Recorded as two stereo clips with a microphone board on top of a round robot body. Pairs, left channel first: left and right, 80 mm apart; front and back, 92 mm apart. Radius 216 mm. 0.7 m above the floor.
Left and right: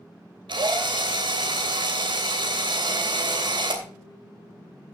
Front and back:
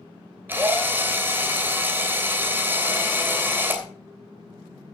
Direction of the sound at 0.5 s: 110° right.